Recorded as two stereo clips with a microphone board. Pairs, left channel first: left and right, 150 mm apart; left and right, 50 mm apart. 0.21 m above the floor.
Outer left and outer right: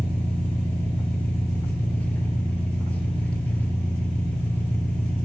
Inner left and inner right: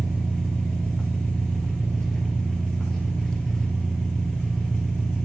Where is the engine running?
10° left (ahead or behind), 1.1 m.